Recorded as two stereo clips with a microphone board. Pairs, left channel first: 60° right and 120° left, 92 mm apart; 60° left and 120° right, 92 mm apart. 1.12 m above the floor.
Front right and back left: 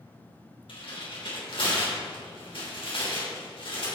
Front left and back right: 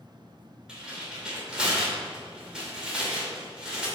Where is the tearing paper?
40° right, 3.5 m.